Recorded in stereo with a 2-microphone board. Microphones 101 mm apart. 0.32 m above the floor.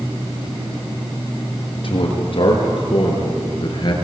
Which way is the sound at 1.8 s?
55° left (ahead or behind).